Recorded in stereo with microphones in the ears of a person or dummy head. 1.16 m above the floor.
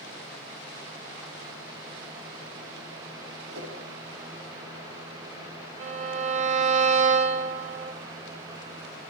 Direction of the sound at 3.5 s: 85° right.